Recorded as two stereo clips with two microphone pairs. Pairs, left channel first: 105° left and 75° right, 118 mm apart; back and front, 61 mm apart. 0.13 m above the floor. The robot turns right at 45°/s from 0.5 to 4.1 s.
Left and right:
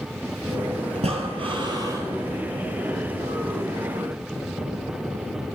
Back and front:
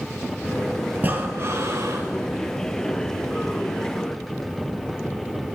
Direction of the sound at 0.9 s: 65° right.